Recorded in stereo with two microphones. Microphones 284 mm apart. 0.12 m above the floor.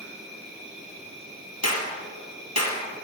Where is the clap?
60° left (ahead or behind), 2 m.